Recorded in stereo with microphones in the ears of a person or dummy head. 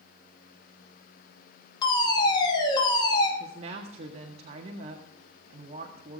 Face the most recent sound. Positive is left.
turn(degrees=-40)  # may be behind; listen again after turning